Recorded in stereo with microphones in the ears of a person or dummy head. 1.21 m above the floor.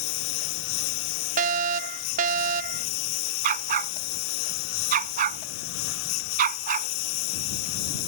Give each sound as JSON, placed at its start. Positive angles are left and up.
{"t": 0.0, "sound": "a lawn mower", "side_deg": 70}
{"t": 1.4, "sound": "a fire alarm", "side_deg": -40}
{"t": 3.4, "sound": "a dog barking", "side_deg": -45}